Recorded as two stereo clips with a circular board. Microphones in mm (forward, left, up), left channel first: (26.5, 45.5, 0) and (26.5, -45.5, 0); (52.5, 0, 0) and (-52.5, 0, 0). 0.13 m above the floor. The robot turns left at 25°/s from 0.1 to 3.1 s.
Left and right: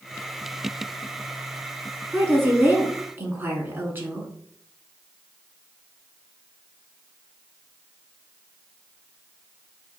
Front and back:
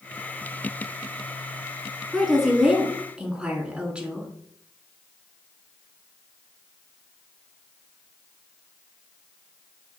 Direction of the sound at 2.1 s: 90° right.